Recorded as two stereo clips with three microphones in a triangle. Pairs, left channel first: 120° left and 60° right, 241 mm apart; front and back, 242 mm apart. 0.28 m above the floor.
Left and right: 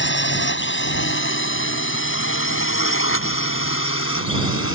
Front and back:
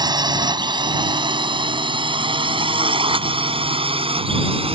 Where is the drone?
110° left; by 4.8 s 115° left.